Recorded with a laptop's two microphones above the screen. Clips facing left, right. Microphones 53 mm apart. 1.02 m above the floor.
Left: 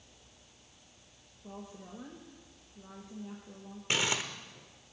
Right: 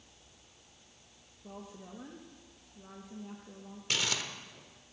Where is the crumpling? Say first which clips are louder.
Left 3 dB; 25° left (ahead or behind), 1.0 m.